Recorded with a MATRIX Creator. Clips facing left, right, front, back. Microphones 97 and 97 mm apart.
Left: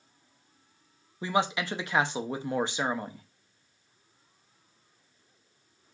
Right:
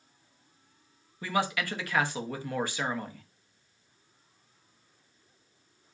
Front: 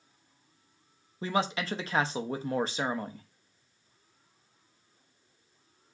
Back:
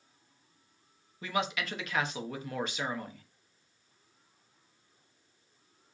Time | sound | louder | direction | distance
1.2 | a man speaking | left 2 dB, front 3 dB | 35° left | 0.6 m